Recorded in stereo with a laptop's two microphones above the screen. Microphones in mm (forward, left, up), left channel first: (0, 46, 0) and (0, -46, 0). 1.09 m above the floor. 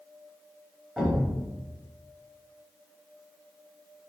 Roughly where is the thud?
Centre.